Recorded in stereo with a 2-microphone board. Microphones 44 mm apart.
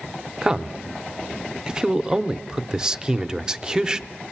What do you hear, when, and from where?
0.4 s a man speaking: 15° right (ahead or behind), 0.7 m